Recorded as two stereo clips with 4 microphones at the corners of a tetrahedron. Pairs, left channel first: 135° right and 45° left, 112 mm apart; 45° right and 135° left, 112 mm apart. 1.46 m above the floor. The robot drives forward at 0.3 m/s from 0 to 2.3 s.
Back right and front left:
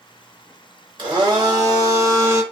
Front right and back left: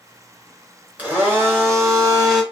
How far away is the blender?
About 0.9 m.